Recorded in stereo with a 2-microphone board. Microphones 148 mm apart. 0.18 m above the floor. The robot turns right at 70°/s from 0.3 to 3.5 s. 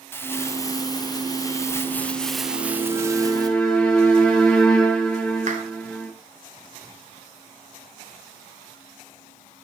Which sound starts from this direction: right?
A clap, at 5.5 s.